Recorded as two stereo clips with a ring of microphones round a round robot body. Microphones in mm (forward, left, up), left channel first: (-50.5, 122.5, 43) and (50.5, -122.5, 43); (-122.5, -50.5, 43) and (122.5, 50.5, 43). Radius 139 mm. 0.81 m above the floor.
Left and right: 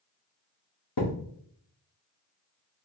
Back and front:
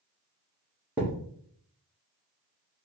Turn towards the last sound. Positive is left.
turn(degrees=105)